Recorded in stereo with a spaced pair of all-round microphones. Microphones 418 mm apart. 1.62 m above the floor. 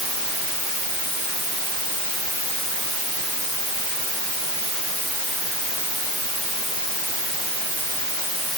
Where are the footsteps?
No footsteps in this recording.